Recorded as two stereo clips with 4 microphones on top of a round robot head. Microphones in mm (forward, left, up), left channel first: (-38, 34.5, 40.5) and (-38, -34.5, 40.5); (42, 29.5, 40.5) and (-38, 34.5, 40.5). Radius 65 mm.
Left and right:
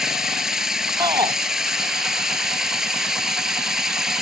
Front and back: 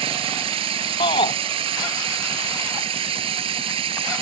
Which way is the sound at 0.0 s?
175° right.